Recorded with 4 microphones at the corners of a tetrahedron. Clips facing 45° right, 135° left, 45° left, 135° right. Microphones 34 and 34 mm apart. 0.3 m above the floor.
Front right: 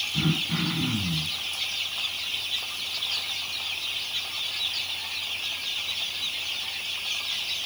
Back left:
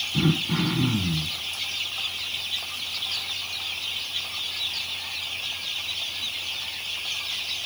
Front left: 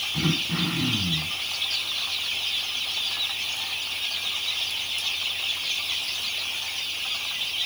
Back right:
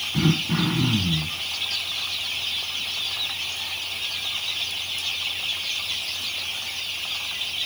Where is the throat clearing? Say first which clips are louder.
Back left 4 dB, back right 5 dB; 160° left, 6.5 m.